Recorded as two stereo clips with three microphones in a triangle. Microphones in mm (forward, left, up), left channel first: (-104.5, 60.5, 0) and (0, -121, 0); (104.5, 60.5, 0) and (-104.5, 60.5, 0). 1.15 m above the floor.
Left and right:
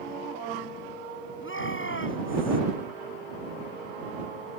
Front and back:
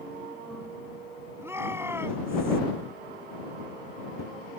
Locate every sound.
1.4 s a shout: 100° left